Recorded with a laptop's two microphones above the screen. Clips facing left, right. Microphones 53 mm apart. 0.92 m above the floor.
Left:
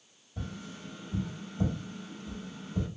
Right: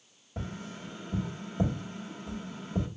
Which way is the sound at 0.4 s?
65° right (ahead or behind).